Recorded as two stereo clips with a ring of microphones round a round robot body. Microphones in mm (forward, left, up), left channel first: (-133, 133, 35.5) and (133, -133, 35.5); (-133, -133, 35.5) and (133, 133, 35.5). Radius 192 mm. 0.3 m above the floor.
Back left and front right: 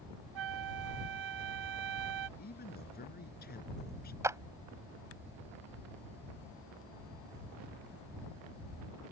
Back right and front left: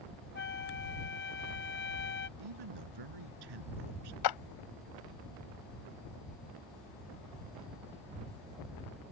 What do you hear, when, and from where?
0.3 s a flute: 75° right
2.4 s a man speaking: 70° left
4.2 s a clap: 125° right